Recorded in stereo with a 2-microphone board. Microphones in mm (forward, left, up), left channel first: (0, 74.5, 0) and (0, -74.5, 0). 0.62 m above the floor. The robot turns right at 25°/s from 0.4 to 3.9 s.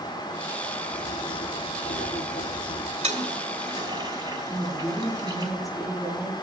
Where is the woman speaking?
25° left (ahead or behind), 6 m.